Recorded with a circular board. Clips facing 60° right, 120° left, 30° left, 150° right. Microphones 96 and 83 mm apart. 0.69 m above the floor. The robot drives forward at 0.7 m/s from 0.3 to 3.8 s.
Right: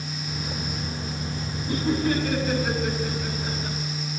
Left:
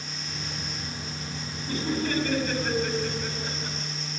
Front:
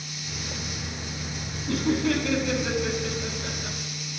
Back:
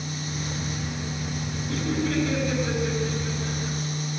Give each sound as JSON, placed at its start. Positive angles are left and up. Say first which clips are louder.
{"t": 1.7, "sound": "laughter", "louder": "right 4 dB, front 3 dB", "azimuth_deg": 15, "distance_m": 5.0}